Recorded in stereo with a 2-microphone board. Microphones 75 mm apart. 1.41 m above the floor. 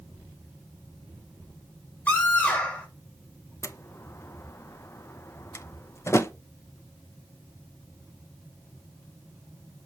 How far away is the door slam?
About 0.7 m.